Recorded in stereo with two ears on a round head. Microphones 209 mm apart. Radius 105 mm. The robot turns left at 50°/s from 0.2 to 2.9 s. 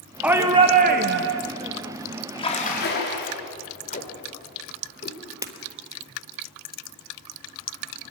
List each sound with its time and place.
0.2 s a shout: 5° right, 1.1 m; by 1.4 s 65° right, 1.1 m
2.4 s a splash: 20° left (ahead or behind), 4.5 m; by 3.4 s 50° left (ahead or behind), 4.5 m
3.9 s tape being pulled: 40° left (ahead or behind), 3 m
5.4 s breaking glass: 15° right (ahead or behind), 2 m